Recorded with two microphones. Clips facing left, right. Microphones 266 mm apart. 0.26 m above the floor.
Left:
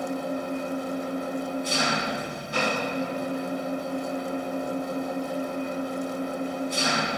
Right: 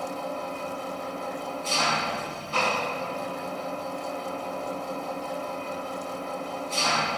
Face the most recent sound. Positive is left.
turn(degrees=15)  # may be behind; listen again after turning